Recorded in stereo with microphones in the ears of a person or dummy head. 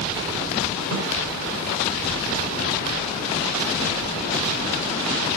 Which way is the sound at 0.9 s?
80° right.